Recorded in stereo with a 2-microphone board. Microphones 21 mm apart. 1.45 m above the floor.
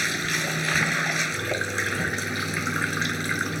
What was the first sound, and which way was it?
Running water, centre (ahead or behind).